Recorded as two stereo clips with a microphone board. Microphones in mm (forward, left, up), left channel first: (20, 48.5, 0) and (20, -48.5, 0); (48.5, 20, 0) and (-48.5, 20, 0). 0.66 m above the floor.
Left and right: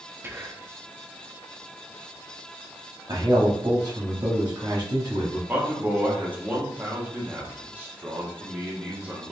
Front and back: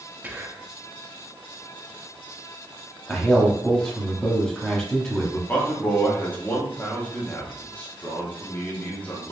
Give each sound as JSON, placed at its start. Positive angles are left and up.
{"t": 0.2, "sound": "whispering", "azimuth_deg": -130, "distance_m": 0.5}
{"t": 3.1, "sound": "a man speaking", "azimuth_deg": -80, "distance_m": 1.1}
{"t": 5.5, "sound": "a man speaking", "azimuth_deg": -45, "distance_m": 1.0}